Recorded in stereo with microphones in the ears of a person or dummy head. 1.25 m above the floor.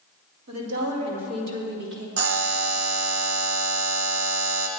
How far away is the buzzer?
About 1.0 m.